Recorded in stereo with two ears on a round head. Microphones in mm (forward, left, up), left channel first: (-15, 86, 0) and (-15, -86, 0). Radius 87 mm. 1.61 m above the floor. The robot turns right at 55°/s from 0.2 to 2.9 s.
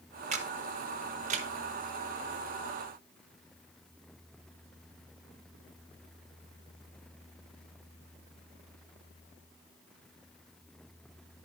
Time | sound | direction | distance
0.3 | a camera shutter | 40° right (ahead or behind) | 0.9 m